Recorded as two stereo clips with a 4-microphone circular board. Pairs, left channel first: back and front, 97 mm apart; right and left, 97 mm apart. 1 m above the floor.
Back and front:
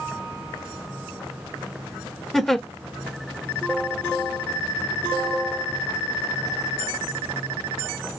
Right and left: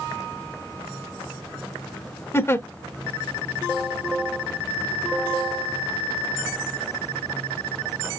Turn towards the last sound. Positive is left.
turn(degrees=-95)